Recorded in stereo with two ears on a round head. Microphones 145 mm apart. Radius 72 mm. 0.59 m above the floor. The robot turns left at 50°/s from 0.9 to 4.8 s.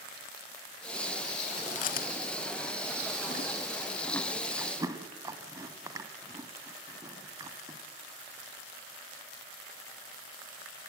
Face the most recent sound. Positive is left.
turn(degrees=-20)  # may be behind; listen again after turning